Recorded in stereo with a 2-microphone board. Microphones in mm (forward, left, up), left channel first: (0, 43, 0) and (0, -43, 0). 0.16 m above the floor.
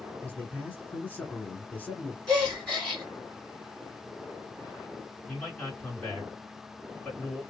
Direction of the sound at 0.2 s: 15° left (ahead or behind).